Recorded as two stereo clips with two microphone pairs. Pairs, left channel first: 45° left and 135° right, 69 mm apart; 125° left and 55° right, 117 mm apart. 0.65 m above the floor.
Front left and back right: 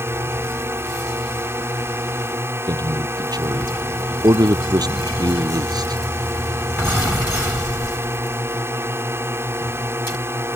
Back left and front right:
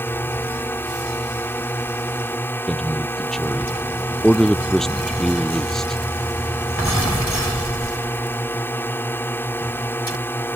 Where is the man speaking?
150° right.